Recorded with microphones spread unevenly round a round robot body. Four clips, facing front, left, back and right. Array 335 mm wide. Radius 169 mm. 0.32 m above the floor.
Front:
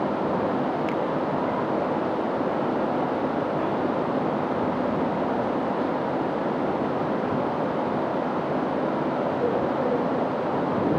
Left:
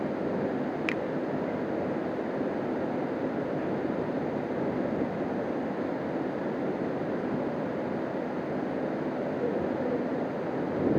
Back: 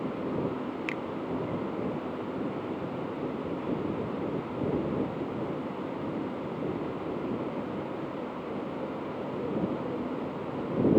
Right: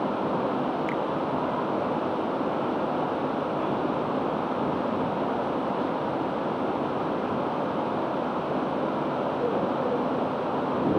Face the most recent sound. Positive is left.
turn(degrees=120)